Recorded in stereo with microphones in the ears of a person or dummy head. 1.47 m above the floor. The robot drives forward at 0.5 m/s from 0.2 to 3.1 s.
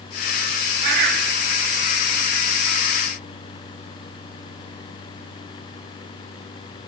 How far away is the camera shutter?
I don't hear a camera shutter.